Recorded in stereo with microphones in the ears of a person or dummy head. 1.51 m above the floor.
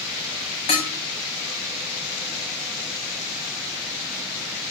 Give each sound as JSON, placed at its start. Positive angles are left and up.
{"t": 0.7, "sound": "dishes clattering", "side_deg": 30, "distance_m": 3.5}